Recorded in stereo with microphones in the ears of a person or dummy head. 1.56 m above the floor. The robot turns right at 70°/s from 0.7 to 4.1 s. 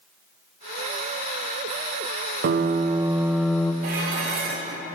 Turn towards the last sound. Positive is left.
turn(degrees=-50)  # may be behind; listen again after turning